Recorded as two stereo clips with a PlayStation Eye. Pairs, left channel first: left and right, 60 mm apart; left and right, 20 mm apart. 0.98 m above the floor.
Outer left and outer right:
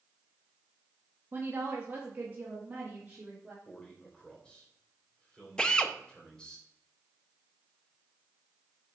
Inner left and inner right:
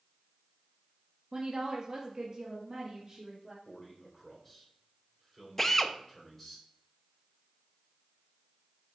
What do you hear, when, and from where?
1.3 s a woman speaking: 40° right (ahead or behind), 1.6 m; by 3.5 s 25° right (ahead or behind), 3 m
3.6 s a man speaking: 15° left (ahead or behind), 3.5 m
5.6 s a drill: 15° left (ahead or behind), 0.6 m